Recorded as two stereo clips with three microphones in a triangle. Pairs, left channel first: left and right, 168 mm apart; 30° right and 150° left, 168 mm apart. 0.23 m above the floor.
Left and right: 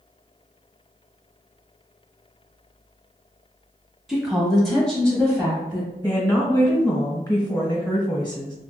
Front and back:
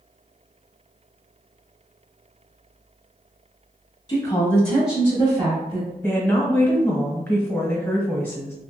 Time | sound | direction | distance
4.1 | a woman speaking | 5° right | 1.5 m
6.0 | a woman speaking | 35° left | 1.3 m